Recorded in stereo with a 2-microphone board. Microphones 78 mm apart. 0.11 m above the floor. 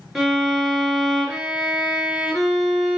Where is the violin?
Centre (ahead or behind), 2 m.